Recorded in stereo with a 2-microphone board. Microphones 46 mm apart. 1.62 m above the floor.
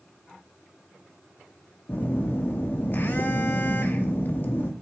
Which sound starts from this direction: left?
A phone buzzing, at 1.9 s.